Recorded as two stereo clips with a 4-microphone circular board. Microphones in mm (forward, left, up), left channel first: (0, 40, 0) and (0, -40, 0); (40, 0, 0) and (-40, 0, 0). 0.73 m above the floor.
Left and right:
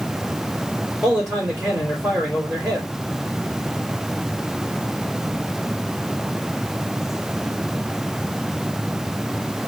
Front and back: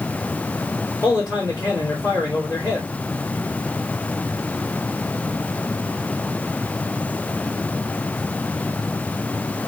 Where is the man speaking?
40° right, 2.5 m.